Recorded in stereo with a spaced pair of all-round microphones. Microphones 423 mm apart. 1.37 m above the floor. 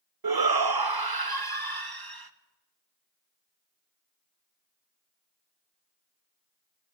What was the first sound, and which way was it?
A shout, 60° right (ahead or behind).